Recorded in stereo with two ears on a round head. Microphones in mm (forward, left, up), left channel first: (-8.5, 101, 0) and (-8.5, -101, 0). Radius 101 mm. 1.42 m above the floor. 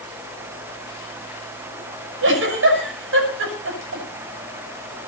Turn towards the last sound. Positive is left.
turn(degrees=-60)  # may be behind; listen again after turning